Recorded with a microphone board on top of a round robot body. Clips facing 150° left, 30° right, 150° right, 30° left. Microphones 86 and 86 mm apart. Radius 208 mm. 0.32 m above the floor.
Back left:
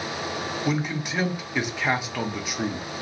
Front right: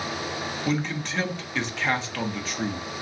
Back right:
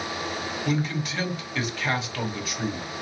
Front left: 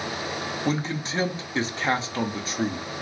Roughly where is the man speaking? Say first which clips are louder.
Even, even; left.